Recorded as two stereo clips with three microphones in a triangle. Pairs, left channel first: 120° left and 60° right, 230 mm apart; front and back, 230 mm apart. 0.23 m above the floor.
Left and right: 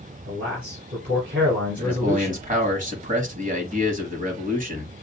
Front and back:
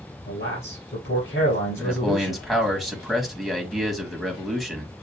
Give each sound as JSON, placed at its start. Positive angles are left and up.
{"t": 0.3, "sound": "a man speaking", "azimuth_deg": -25, "distance_m": 3.5}
{"t": 1.8, "sound": "a man speaking", "azimuth_deg": -90, "distance_m": 1.4}